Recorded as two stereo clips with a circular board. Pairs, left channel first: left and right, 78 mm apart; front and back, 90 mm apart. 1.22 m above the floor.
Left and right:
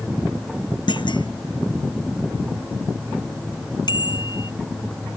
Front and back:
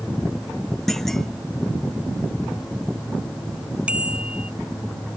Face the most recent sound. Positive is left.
turn(degrees=105)